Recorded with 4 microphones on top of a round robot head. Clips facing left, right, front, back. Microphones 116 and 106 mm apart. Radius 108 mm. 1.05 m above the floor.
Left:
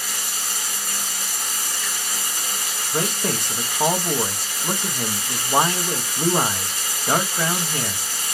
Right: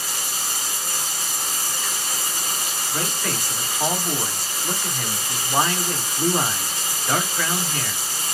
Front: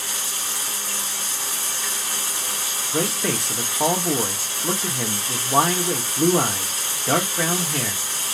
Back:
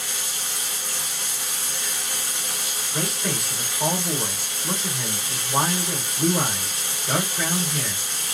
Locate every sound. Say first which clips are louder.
0.0 s running water: right 1 dB, front 2 dB; 45° right, 1.0 m
2.9 s a man speaking: left 4 dB, front 5 dB; 20° left, 1.1 m